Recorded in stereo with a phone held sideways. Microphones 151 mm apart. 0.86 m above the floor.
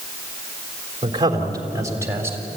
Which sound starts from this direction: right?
A man speaking, at 1.0 s.